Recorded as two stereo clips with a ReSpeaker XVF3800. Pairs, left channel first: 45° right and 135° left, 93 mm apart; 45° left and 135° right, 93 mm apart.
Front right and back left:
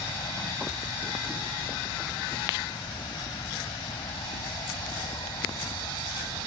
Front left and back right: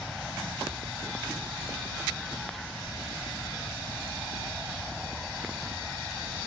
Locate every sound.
0.0 s an aircraft: 45° right